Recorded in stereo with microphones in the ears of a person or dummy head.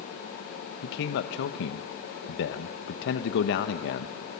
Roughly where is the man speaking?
Left.